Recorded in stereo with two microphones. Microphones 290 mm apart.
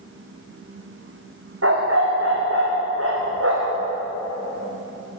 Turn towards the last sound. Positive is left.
turn(degrees=-50)  # may be behind; listen again after turning